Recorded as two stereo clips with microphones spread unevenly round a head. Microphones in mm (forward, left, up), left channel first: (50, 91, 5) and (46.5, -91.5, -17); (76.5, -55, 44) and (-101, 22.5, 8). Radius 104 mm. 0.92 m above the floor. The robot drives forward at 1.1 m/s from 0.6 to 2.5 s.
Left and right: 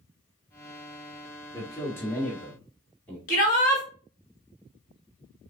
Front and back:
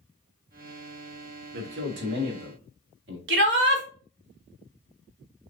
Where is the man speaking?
165° left, 1.0 m; by 3.2 s 175° left, 2 m.